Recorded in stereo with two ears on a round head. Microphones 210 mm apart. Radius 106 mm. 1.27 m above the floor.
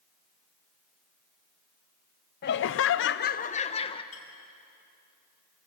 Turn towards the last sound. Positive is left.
turn(degrees=65)  # may be behind; listen again after turning